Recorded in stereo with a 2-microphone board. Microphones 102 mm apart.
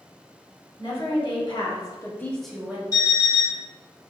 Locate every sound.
0.8 s a woman speaking: 55° left (ahead or behind), 1.4 m; by 2.8 s 20° right (ahead or behind), 0.6 m
2.9 s an alarm clock: 35° left (ahead or behind), 1.3 m